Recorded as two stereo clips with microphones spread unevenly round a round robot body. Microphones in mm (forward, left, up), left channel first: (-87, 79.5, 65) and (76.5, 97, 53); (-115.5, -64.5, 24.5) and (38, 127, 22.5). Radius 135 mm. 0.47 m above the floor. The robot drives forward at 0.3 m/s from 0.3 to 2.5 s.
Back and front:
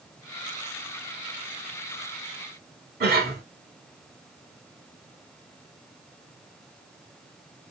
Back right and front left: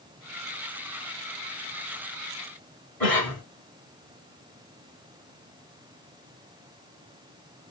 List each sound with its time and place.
3.0 s a cough: 45° right, 2.5 m